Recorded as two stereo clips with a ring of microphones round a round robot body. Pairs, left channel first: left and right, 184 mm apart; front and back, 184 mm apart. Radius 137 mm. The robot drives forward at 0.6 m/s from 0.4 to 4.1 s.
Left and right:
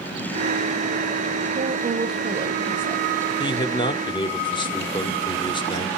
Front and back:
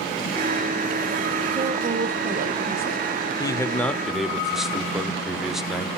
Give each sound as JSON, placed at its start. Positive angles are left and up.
{"t": 1.6, "sound": "a woman speaking", "azimuth_deg": -120, "distance_m": 0.9}
{"t": 3.4, "sound": "a man speaking", "azimuth_deg": 50, "distance_m": 1.2}